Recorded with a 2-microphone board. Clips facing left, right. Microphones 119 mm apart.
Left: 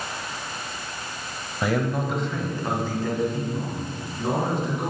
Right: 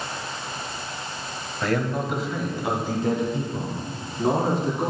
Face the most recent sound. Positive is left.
turn(degrees=-25)  # may be behind; listen again after turning